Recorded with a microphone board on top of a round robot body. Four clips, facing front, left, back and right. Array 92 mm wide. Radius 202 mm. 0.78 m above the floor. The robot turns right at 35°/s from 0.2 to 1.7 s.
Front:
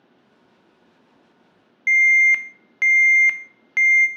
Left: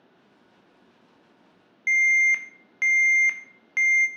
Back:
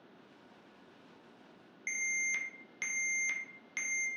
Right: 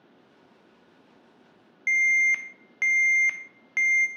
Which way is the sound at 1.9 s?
Straight ahead.